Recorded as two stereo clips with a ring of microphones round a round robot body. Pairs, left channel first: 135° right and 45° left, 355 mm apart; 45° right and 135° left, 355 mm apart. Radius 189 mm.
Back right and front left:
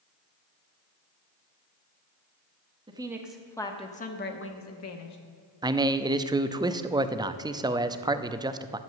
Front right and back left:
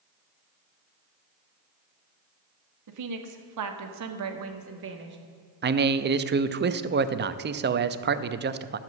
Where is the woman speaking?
120° left, 1.5 m; by 5.2 s 170° right, 1.9 m.